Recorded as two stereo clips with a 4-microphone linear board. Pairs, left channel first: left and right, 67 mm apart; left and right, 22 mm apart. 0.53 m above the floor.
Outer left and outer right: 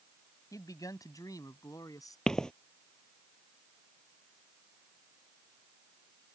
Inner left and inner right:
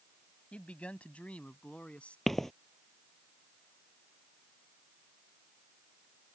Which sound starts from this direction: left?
A man speaking, at 0.5 s.